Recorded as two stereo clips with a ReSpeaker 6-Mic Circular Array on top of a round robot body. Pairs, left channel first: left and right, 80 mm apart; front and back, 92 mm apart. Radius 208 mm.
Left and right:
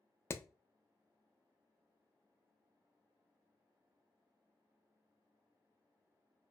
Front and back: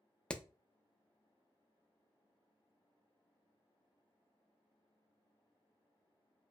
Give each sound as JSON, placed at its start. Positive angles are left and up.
{"t": 0.3, "sound": "hammering", "azimuth_deg": 70, "distance_m": 0.5}